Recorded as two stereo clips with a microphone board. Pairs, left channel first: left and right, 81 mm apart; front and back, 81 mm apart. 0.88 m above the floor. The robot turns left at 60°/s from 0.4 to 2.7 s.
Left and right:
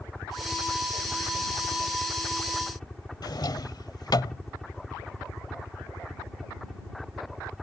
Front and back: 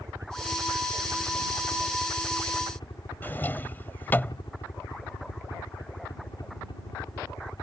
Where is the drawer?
65° left.